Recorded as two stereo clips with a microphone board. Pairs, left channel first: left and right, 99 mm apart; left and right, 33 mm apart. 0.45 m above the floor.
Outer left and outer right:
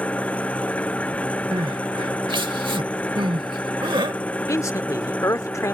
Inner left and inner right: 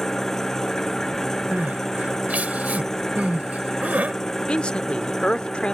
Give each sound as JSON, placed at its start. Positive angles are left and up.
{"t": 0.0, "sound": "an engine running", "side_deg": 15}
{"t": 1.5, "sound": "crying", "side_deg": -55}
{"t": 4.5, "sound": "a man speaking", "side_deg": 30}